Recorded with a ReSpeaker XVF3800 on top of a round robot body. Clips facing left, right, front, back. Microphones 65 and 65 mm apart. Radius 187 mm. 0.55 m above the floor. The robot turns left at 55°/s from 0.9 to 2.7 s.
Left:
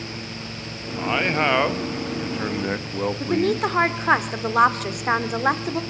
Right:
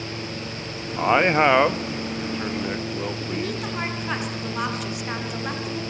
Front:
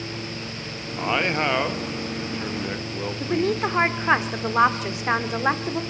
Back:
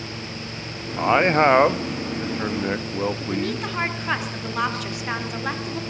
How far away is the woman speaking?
About 2.5 m.